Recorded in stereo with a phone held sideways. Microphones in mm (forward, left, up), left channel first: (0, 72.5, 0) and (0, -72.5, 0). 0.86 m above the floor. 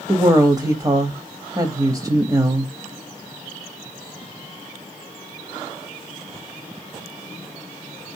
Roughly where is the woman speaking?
Right.